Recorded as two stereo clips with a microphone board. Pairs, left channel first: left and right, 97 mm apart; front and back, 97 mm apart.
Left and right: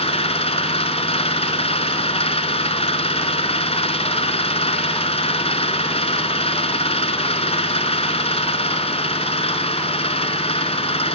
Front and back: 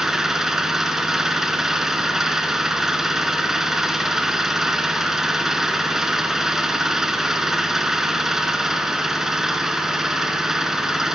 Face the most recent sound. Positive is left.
turn(degrees=95)